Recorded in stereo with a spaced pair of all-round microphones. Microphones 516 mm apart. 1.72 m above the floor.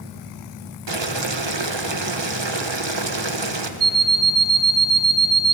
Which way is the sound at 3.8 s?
50° right (ahead or behind).